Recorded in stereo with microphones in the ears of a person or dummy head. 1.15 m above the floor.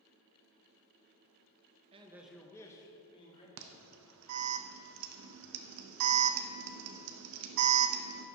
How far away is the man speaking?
About 0.6 m.